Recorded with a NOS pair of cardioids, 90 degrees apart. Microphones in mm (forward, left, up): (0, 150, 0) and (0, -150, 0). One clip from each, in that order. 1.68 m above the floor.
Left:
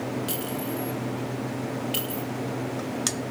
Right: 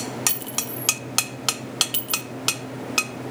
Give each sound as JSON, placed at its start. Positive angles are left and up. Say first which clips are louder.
{"t": 0.3, "sound": "a clink", "louder": "even", "azimuth_deg": -60, "distance_m": 2.5}